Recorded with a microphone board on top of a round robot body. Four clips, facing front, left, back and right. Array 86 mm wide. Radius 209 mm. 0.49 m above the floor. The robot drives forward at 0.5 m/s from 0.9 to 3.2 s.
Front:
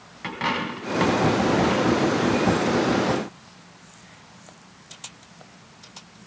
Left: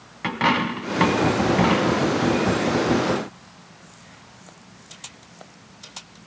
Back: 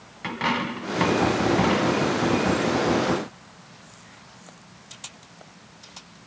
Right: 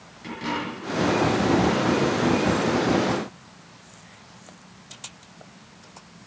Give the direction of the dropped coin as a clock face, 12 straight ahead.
9 o'clock.